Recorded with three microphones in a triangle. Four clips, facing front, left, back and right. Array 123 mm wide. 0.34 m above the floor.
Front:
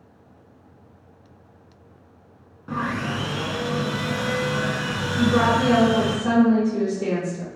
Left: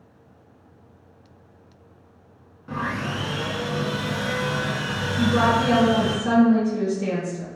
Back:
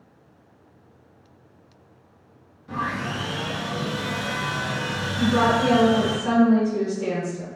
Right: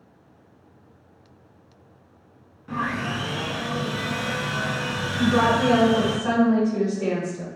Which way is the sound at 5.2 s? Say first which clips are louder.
Even, front 1 dB; 70° right.